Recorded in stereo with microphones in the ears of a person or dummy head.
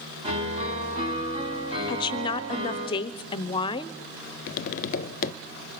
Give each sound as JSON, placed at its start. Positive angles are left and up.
{"t": 0.2, "sound": "a piano", "side_deg": -30, "distance_m": 4.0}
{"t": 1.9, "sound": "a woman speaking", "side_deg": 30, "distance_m": 0.7}
{"t": 4.5, "sound": "tapping", "side_deg": 50, "distance_m": 0.6}